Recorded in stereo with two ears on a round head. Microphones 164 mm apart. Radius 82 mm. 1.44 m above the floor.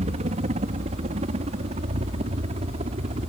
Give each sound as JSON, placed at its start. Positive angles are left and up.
{"t": 0.0, "sound": "a helicopter", "side_deg": -35}